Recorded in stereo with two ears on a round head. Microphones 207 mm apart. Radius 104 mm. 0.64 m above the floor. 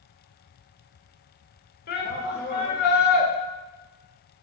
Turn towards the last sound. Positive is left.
turn(degrees=40)  # may be behind; listen again after turning